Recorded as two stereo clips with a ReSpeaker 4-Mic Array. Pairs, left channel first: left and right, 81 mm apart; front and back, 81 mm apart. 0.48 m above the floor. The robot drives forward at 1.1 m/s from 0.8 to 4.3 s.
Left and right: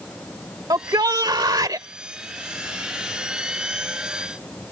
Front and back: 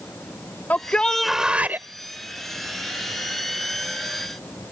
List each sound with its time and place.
0.7 s a shout: 65° right; by 1.9 s 120° right